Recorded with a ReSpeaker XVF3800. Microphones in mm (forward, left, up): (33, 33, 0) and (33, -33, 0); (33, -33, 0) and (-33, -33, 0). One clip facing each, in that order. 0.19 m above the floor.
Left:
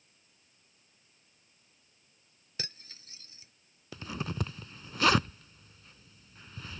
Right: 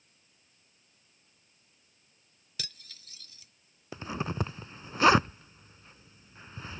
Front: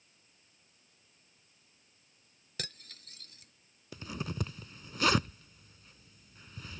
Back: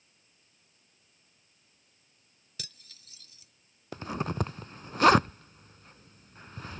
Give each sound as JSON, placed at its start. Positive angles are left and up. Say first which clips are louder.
{"t": 2.6, "sound": "cutlery clinking", "louder": "left 2 dB, front 6 dB", "azimuth_deg": 30}
{"t": 3.9, "sound": "a zipper", "louder": "right 3 dB, back 7 dB", "azimuth_deg": -145}